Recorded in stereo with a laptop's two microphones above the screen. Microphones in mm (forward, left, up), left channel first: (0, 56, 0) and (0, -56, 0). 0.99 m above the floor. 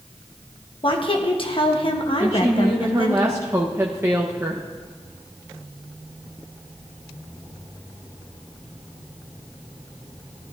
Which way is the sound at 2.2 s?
25° right (ahead or behind).